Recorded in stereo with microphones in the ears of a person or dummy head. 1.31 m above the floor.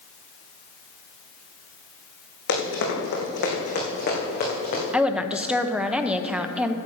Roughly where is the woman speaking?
Centre.